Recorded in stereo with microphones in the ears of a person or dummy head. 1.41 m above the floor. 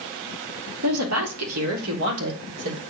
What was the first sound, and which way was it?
A woman speaking, 90° right.